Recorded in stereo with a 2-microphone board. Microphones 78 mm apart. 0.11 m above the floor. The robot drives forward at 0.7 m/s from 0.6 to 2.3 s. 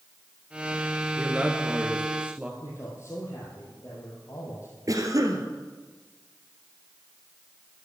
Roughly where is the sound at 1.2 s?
Centre.